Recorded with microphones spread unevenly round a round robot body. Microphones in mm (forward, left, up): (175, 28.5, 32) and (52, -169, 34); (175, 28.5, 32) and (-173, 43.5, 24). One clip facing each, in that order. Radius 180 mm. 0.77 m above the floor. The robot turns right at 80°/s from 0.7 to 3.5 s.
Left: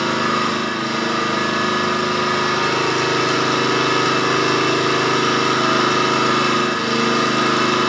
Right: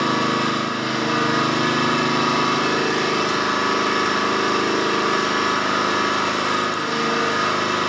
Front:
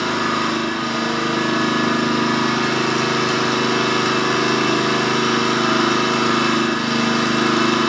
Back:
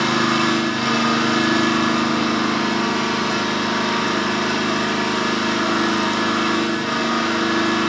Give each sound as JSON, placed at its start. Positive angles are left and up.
{"t": 0.0, "sound": "an engine running", "azimuth_deg": 150, "distance_m": 2.0}